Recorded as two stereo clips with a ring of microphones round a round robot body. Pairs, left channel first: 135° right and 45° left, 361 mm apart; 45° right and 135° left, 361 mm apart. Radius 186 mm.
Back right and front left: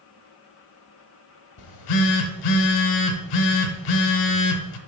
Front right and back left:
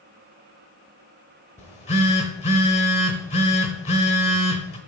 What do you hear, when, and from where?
1.6 s a phone buzzing: 115° right, 0.9 m